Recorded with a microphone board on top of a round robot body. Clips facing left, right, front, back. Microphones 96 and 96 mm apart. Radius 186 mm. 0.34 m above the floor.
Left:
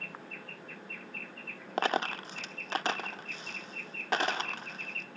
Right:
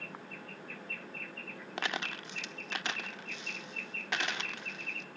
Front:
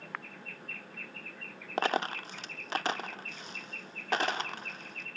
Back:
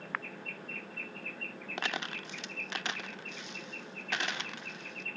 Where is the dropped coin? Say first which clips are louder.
Left 8 dB, front 8 dB; 45° left.